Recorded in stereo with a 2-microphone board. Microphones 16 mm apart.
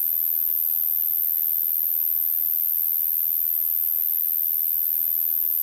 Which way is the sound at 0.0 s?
5° right (ahead or behind).